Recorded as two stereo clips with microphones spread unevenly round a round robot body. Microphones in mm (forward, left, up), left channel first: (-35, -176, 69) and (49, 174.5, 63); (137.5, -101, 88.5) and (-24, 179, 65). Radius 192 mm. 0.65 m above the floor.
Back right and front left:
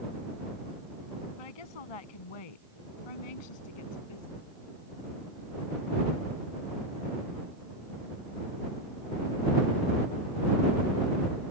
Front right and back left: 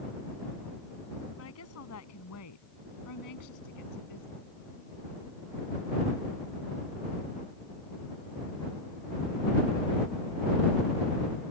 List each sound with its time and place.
1.4 s a woman speaking: 115° right; by 4.5 s 90° right